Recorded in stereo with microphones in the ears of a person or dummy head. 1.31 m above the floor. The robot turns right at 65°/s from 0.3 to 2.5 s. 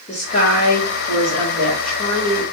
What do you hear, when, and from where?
0.1 s a woman speaking: 45° left, 1.2 m; by 2.4 s 175° right, 1.2 m